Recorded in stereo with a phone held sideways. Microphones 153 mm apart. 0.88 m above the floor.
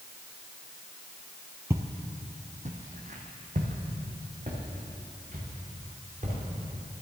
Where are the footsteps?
20° right (ahead or behind), 1.0 m; by 6.4 s 50° right (ahead or behind), 6 m.